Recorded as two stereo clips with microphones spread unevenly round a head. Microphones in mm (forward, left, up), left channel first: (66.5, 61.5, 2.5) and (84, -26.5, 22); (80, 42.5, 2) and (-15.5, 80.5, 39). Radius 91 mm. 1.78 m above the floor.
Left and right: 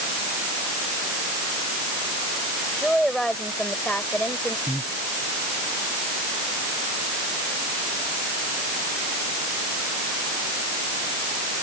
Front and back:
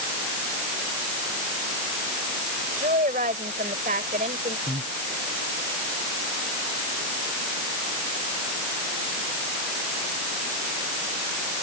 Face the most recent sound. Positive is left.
turn(degrees=-165)